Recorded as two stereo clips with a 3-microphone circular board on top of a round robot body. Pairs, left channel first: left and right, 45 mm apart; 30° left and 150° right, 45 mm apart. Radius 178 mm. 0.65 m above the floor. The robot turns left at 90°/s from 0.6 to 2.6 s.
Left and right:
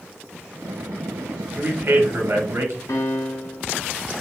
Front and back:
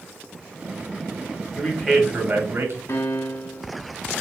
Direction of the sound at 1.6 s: 30° right.